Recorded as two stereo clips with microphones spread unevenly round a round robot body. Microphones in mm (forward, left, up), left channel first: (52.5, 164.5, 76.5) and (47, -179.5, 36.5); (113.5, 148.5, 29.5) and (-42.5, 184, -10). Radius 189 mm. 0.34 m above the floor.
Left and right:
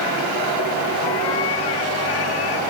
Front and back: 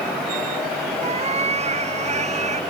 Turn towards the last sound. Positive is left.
turn(degrees=120)